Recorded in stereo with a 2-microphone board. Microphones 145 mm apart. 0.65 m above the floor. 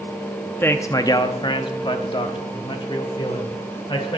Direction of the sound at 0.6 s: 15° left (ahead or behind).